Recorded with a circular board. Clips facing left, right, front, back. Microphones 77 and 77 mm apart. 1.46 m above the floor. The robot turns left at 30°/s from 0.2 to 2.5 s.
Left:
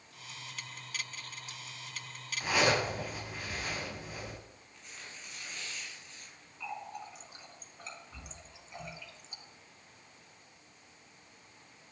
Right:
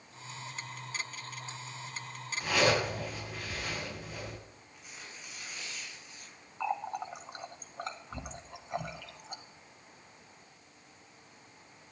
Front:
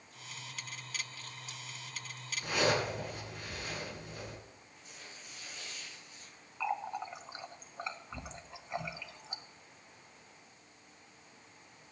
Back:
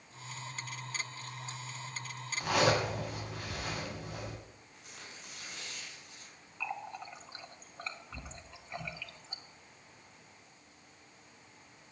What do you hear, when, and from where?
2.4 s a zipper: 175° left, 8.5 m
4.7 s tearing paper: 170° right, 7 m
6.6 s a running tap: 70° right, 1.3 m